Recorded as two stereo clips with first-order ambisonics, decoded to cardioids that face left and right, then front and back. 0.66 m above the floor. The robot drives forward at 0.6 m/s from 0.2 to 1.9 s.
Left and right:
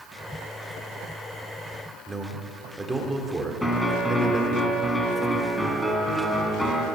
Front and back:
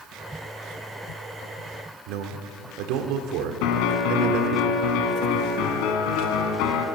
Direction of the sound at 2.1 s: 170° right.